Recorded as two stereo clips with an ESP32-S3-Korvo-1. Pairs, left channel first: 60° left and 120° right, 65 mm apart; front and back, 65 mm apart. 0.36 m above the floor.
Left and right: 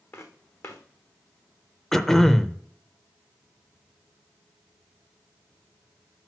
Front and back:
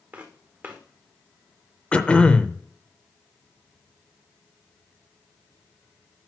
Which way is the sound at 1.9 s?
10° right.